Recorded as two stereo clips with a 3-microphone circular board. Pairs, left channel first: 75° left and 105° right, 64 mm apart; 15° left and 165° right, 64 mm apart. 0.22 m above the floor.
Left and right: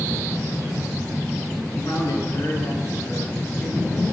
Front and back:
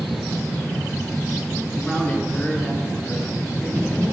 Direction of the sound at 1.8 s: 75° left.